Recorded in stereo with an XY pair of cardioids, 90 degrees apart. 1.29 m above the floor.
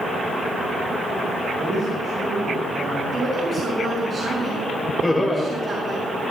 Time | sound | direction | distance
1.6 | a man speaking | 65° right | 5.5 m
3.1 | a woman speaking | 40° right | 5 m
5.0 | laughter | 10° left | 3.5 m